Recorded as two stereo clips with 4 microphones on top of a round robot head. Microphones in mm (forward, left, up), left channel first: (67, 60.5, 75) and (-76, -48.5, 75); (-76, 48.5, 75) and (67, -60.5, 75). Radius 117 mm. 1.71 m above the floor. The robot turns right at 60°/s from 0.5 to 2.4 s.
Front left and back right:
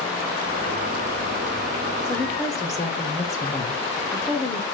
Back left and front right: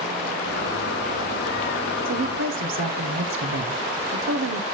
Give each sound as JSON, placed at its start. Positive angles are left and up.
{"t": 2.0, "sound": "a woman speaking", "azimuth_deg": -55, "distance_m": 1.2}